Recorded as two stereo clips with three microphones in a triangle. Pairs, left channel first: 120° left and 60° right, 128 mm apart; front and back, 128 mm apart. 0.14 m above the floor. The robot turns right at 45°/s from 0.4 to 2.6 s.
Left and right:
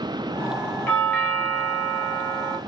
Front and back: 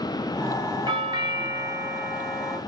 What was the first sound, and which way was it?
A doorbell, 175° left.